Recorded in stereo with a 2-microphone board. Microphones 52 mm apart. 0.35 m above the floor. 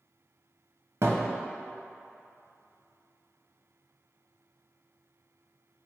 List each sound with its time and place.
1.0 s a thud: 65° right (ahead or behind), 0.9 m